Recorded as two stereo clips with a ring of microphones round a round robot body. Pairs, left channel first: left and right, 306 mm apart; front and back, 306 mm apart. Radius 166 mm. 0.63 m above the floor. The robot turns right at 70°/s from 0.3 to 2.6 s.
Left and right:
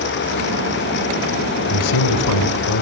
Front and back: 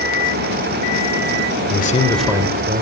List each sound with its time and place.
1.7 s a man speaking: 50° left, 2.5 m; by 2.8 s 115° left, 2.5 m